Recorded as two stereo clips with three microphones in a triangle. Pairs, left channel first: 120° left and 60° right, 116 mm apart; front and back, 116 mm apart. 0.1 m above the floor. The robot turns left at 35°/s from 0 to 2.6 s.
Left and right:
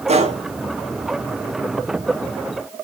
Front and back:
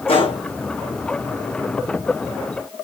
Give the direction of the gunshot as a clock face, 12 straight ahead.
1 o'clock.